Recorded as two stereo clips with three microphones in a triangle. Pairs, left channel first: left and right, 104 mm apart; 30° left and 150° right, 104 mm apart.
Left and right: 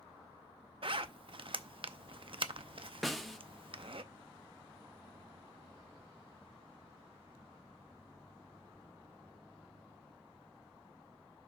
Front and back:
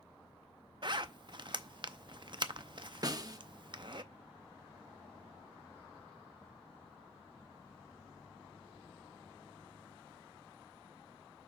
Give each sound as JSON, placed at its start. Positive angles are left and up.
{"t": 0.8, "sound": "a zipper", "azimuth_deg": -115, "distance_m": 0.5}
{"t": 3.0, "sound": "a snare drum", "azimuth_deg": 180, "distance_m": 0.6}